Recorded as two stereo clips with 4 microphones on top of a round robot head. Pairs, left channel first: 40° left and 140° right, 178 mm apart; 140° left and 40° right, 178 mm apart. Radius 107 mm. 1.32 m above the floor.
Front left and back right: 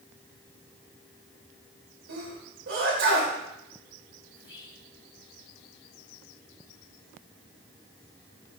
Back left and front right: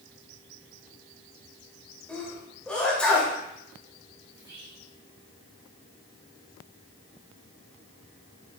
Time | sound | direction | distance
2.1 | a sneeze | 140° right | 2.5 m
4.3 | whispering | 25° left | 0.9 m